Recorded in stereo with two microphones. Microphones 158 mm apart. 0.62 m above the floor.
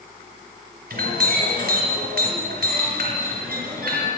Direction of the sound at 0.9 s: 75° right (ahead or behind).